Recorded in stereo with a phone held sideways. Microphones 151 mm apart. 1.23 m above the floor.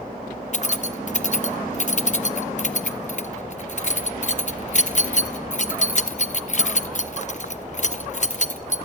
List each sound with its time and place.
0.5 s keys jangling: 50° left (ahead or behind), 1.0 m